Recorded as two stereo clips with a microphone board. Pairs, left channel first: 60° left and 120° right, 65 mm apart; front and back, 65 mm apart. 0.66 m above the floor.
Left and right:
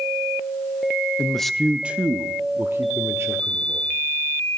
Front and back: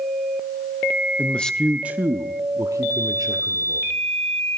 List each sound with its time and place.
1.2 s a man speaking: straight ahead, 0.6 m; by 3.9 s 170° right, 1.8 m